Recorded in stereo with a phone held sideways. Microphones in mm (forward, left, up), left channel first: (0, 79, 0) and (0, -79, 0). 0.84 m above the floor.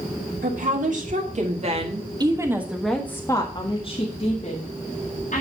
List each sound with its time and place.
0.4 s a woman speaking: 70° right (ahead or behind), 2.5 m; by 5.4 s 60° left (ahead or behind), 3 m